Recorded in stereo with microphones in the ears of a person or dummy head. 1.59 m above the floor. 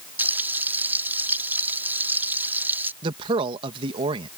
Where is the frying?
10° right (ahead or behind).